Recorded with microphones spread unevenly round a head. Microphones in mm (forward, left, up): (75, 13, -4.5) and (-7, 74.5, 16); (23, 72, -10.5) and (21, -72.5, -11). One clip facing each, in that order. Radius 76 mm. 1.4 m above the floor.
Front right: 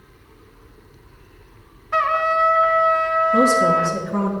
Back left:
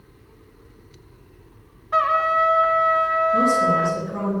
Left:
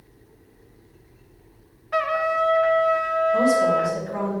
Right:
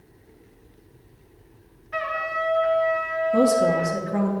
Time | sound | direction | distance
1.9 | a trumpet | 60° left | 0.8 m
3.3 | a woman speaking | 45° right | 1.6 m